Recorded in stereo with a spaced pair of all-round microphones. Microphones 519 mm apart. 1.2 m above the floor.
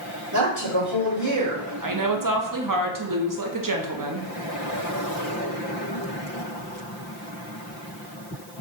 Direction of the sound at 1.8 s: 40° right (ahead or behind).